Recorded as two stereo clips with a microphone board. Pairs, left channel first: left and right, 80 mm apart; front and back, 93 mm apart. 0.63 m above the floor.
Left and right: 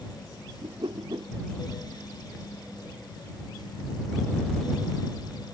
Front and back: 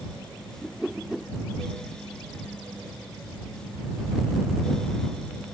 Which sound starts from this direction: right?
A whoosh, at 0.6 s.